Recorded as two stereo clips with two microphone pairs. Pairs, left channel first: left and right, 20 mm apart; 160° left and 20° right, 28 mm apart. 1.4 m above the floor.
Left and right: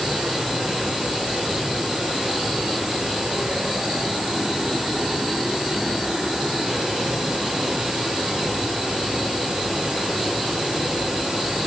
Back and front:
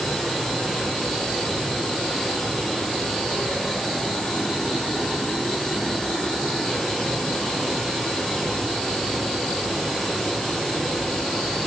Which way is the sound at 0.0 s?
115° right.